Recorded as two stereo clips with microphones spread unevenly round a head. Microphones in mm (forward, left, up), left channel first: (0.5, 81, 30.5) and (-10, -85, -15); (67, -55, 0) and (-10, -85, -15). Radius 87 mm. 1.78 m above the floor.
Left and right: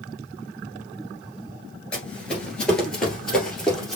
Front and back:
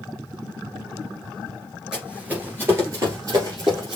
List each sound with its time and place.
1.9 s running footsteps: 115° left, 1.8 m; by 4.0 s 160° left, 2.5 m